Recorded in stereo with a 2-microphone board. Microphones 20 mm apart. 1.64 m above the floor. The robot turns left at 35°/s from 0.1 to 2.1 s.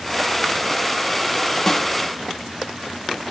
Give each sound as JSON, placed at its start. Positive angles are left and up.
{"t": 1.7, "sound": "a snare drum", "side_deg": 20, "distance_m": 2.0}